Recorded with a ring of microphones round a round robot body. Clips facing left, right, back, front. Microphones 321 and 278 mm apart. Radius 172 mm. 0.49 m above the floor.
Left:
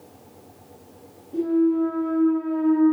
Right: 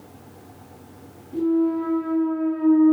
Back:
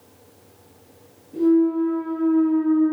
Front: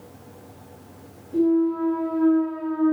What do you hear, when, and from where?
1.3 s a clunk: 25° right, 1.1 m